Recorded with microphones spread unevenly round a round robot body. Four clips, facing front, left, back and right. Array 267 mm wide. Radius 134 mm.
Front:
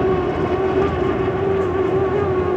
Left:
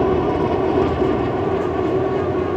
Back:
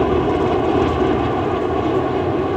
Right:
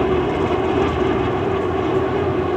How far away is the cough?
No cough in this recording.